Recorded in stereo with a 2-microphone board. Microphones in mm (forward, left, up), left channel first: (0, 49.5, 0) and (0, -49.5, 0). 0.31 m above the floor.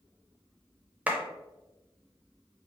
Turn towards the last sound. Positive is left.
turn(degrees=-15)  # may be behind; listen again after turning